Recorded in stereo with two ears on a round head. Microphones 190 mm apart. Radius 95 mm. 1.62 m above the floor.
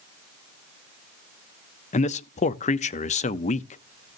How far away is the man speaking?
About 0.6 m.